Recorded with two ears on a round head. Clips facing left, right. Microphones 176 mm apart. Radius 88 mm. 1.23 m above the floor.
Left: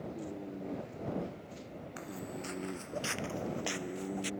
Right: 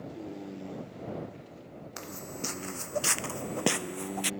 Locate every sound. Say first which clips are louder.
2.0 s footsteps: right 2 dB; 55° right (ahead or behind); by 4.3 s 75° right (ahead or behind)